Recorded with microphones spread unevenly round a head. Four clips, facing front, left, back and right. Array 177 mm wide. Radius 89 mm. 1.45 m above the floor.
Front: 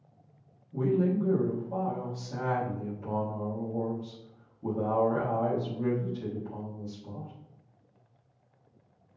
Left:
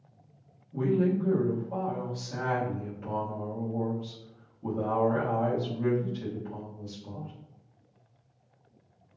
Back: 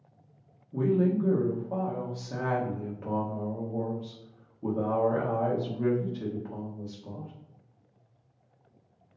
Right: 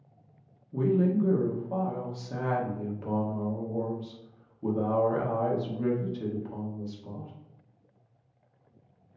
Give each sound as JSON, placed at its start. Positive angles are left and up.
{"t": 0.7, "sound": "a woman speaking", "azimuth_deg": -150, "distance_m": 1.2}